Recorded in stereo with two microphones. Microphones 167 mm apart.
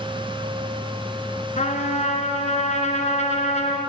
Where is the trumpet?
45° left (ahead or behind), 1.3 m.